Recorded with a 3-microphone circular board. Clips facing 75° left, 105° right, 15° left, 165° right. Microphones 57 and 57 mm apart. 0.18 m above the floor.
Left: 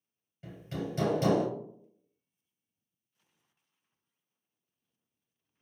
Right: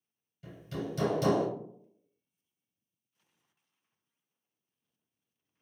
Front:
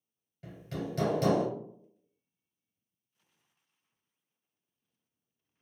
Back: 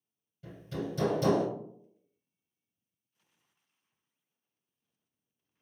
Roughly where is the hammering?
Ahead.